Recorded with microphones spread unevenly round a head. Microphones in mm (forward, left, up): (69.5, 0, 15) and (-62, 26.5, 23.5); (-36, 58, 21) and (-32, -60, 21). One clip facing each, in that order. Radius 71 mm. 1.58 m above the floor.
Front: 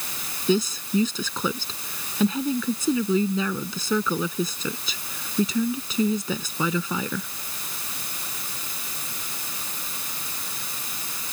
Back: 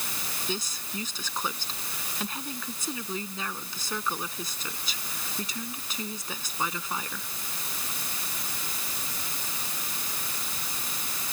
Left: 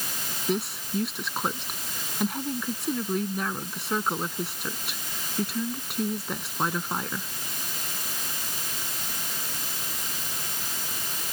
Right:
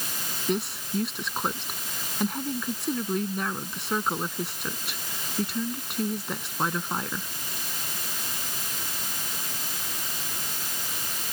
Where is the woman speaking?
5° left.